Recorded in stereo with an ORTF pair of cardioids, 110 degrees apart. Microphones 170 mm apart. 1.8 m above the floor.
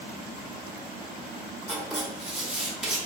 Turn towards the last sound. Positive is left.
turn(degrees=0)